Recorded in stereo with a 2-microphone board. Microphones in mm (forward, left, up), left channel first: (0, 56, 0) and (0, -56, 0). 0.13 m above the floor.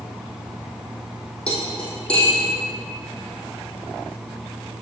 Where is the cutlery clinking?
10° left (ahead or behind), 3 m.